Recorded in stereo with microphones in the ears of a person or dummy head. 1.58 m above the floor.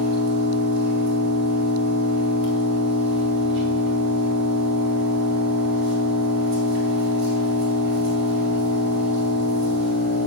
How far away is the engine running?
About 2.5 m.